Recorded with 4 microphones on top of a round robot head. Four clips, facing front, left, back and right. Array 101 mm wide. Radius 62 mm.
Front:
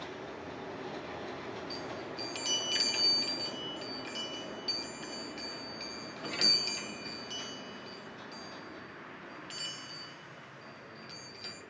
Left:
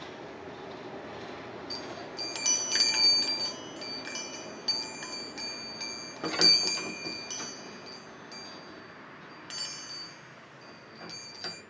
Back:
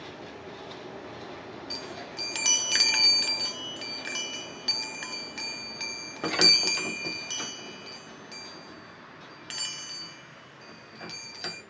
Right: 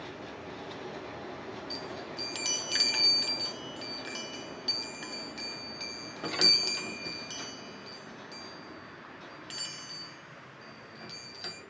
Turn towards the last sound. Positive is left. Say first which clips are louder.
# even, back 1 dB
turn(degrees=165)